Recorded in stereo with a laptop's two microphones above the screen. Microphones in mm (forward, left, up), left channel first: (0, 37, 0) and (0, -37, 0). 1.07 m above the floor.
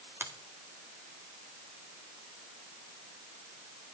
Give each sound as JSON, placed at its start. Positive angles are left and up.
{"t": 0.2, "sound": "a finger snap", "side_deg": -35, "distance_m": 2.0}